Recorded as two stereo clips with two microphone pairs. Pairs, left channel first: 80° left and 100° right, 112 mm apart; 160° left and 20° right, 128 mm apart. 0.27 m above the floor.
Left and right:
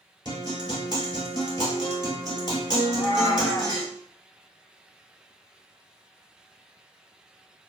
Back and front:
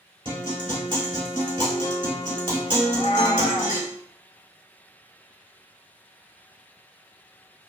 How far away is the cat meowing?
About 0.6 m.